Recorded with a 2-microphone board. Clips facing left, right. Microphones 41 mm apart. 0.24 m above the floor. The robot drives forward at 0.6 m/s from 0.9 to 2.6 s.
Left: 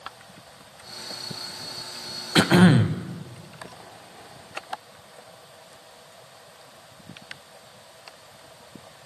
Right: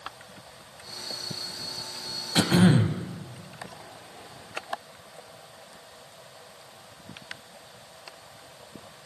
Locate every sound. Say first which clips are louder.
2.4 s throat clearing: left 4 dB; 35° left (ahead or behind), 0.6 m